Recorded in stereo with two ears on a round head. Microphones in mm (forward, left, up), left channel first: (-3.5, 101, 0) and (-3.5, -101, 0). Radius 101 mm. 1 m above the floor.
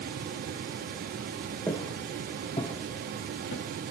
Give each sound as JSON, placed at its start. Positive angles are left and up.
{"t": 1.7, "sound": "footsteps", "side_deg": 10, "distance_m": 3.0}